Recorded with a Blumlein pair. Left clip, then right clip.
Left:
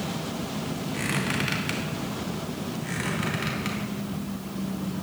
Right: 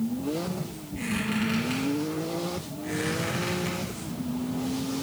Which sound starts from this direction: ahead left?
A squeak, at 0.9 s.